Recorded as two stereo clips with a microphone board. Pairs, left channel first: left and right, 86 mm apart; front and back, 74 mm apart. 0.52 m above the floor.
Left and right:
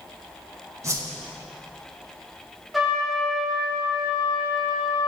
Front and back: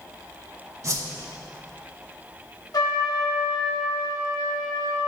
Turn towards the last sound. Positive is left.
turn(degrees=-5)